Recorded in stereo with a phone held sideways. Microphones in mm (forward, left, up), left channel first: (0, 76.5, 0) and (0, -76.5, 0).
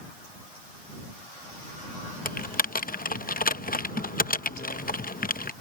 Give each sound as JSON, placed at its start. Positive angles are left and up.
{"t": 2.2, "sound": "typing on a keyboard", "side_deg": 70}